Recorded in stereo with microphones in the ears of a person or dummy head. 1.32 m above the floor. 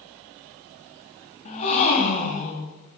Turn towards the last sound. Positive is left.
turn(degrees=35)  # may be behind; listen again after turning